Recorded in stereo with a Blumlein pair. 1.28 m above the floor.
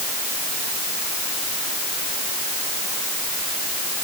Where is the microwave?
I don't hear a microwave.